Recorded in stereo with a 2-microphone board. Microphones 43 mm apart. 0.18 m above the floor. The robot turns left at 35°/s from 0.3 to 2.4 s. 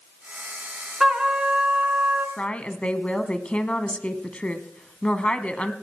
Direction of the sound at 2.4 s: 30° left (ahead or behind).